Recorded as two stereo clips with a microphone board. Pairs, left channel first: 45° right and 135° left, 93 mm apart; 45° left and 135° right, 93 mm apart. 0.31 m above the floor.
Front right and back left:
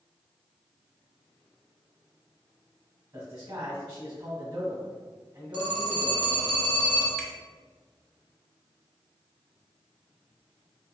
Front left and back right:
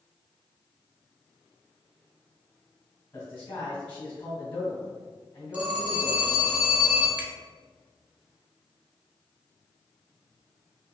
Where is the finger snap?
135° right, 0.6 m.